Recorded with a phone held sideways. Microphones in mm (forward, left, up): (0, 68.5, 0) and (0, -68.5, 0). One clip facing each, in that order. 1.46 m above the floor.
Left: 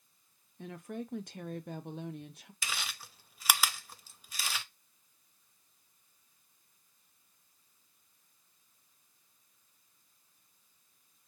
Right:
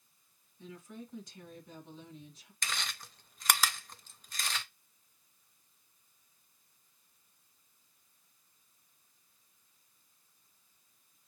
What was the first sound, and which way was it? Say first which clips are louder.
A woman speaking: left 6 dB; 65° left (ahead or behind).